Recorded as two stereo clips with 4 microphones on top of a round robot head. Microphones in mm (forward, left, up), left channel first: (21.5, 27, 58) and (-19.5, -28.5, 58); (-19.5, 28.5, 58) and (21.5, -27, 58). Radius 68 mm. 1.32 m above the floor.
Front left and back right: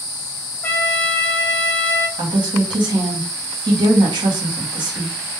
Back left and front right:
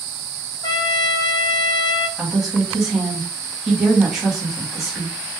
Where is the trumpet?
120° left, 0.5 m.